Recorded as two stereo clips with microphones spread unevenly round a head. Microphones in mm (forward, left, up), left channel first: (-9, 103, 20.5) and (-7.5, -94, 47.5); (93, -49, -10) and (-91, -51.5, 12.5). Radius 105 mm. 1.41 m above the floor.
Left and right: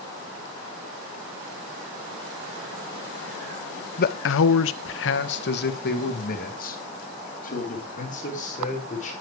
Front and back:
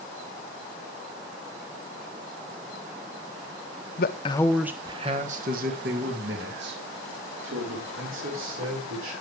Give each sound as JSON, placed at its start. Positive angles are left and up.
{"t": 4.0, "sound": "a man speaking", "azimuth_deg": 45, "distance_m": 0.8}